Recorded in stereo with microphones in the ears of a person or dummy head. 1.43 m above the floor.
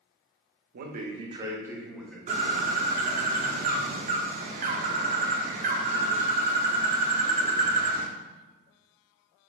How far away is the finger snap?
No finger snap in this recording.